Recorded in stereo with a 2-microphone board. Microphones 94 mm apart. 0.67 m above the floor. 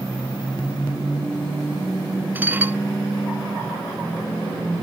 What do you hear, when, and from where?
2.4 s dishes clattering: 20° right (ahead or behind)